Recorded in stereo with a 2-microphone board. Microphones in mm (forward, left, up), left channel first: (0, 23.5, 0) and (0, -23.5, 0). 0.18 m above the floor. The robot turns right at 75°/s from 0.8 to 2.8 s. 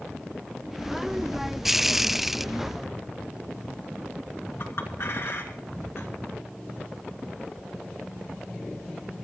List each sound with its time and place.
4.6 s a clink: 55° left (ahead or behind), 1.8 m